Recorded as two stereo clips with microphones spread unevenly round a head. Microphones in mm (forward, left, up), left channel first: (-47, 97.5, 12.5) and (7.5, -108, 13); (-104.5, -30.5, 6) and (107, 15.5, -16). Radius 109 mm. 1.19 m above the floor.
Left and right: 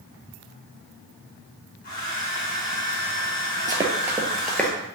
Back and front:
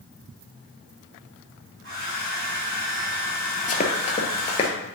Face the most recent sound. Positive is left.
turn(degrees=180)